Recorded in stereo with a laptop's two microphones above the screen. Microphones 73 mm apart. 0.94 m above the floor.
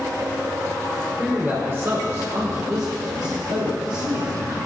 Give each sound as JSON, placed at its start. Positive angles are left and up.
{"t": 1.2, "sound": "a man speaking", "side_deg": -20, "distance_m": 2.5}